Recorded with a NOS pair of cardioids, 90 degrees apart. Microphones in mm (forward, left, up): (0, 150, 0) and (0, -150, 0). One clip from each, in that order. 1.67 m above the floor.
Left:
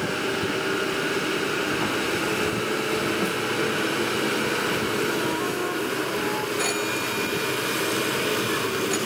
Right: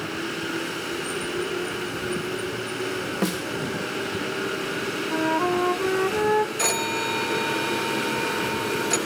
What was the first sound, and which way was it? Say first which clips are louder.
A snare drum: left 2 dB; 55° right.